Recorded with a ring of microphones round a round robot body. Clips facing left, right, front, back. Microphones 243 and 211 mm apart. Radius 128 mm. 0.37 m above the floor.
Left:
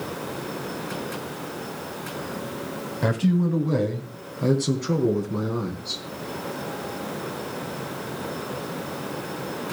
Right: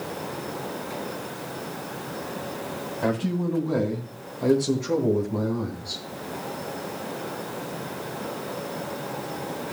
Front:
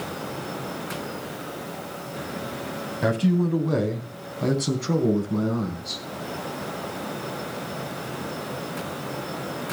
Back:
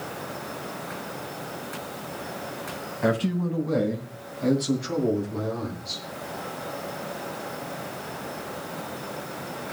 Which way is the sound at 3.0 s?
30° left.